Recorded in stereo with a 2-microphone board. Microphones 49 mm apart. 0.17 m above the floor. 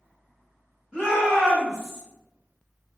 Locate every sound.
0.9 s a shout: 15° right (ahead or behind), 1.3 m; by 2.0 s 20° left (ahead or behind), 1.4 m